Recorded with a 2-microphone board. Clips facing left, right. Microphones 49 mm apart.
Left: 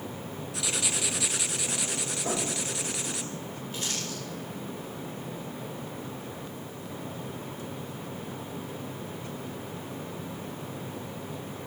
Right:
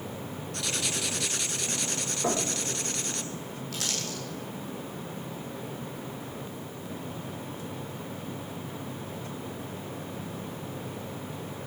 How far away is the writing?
About 0.7 m.